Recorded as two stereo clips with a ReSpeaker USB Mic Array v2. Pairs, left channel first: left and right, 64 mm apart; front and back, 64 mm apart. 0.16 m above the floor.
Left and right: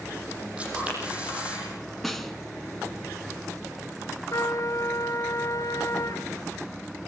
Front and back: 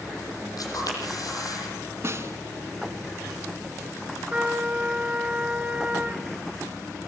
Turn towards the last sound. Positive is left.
turn(degrees=110)